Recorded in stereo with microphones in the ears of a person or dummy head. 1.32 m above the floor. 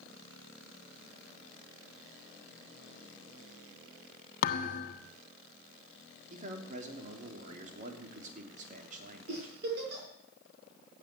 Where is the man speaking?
45° right (ahead or behind), 3 m.